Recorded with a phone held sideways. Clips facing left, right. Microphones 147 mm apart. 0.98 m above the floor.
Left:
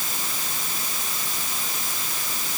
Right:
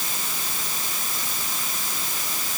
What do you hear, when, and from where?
Only background noise.